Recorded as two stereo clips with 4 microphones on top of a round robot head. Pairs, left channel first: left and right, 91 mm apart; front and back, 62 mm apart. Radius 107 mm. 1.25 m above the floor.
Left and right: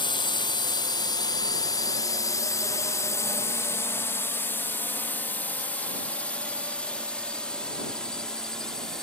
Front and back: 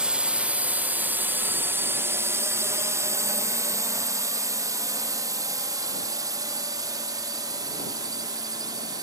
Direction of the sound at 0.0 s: 110° left.